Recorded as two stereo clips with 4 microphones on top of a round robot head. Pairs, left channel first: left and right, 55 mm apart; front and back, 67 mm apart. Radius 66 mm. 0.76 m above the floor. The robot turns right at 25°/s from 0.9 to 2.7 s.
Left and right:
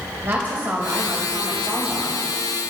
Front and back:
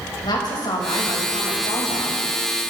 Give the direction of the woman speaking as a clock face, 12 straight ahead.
1 o'clock.